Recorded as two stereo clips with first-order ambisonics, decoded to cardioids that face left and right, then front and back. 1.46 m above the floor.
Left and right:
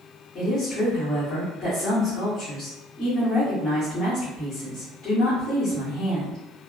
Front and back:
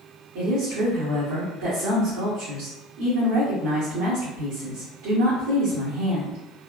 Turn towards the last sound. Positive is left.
turn(degrees=155)